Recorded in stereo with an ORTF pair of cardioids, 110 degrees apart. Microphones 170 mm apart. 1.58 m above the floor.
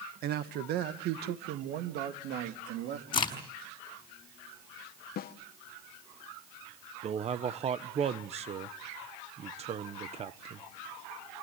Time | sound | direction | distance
0.2 | a man speaking | 65° right | 1.6 m
3.1 | a crack | 30° left | 5.5 m
5.2 | a snare drum | 65° left | 1.3 m
7.0 | a man speaking | 40° right | 1.2 m